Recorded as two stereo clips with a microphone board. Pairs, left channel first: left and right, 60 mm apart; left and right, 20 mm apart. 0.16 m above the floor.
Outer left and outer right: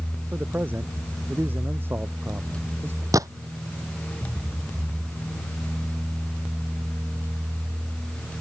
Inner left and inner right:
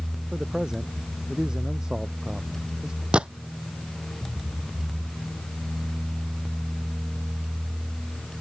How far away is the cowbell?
No cowbell in this recording.